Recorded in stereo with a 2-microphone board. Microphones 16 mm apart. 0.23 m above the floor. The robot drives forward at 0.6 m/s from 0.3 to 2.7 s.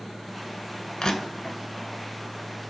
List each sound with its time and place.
1.0 s crushing: 60° left (ahead or behind), 0.7 m; by 1.6 s 40° left (ahead or behind), 0.9 m